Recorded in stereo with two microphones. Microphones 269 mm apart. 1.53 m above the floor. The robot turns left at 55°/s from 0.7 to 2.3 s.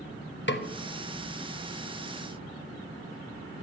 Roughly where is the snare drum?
Left.